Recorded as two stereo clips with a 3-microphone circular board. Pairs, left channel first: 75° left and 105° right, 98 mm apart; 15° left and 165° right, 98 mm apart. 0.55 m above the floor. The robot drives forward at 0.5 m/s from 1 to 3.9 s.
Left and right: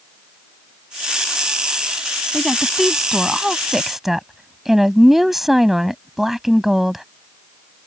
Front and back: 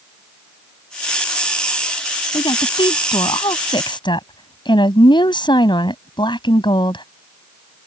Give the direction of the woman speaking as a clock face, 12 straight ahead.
12 o'clock.